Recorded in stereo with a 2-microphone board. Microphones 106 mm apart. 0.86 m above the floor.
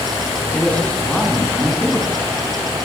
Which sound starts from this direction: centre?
A man speaking, at 0.5 s.